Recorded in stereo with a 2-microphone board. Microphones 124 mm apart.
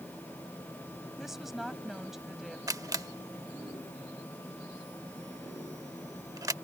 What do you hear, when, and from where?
1.2 s a woman speaking: 5° right (ahead or behind)
2.7 s a camera shutter: 25° right (ahead or behind)